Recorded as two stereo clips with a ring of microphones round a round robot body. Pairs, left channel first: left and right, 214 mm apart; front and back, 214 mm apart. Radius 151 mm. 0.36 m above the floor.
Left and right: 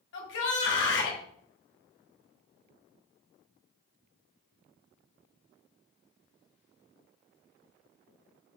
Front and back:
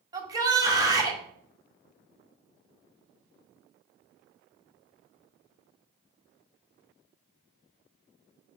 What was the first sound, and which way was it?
A shout, 110° left.